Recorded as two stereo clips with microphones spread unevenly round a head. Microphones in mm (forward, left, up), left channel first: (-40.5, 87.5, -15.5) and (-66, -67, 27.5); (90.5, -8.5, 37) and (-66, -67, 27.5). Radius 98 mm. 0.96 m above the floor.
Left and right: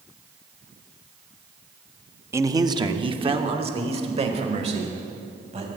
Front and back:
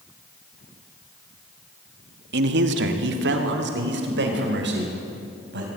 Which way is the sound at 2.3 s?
175° right.